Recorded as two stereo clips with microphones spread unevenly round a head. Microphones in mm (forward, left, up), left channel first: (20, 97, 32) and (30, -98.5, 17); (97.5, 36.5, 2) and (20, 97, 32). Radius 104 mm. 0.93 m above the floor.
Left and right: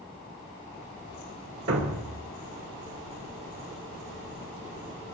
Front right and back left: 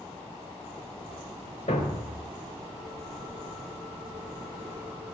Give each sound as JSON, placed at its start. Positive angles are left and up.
{"t": 1.7, "sound": "a thud", "azimuth_deg": -100, "distance_m": 1.4}